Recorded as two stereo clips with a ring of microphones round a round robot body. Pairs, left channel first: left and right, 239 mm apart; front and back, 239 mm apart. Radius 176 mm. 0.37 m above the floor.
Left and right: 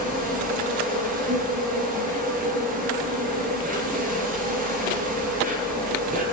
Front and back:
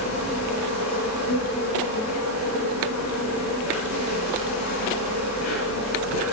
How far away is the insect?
About 8 m.